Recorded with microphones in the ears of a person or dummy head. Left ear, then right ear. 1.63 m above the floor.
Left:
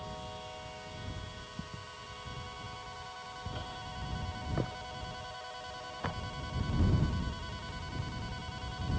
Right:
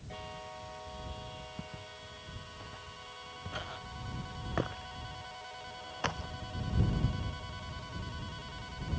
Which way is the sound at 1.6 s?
50° right (ahead or behind).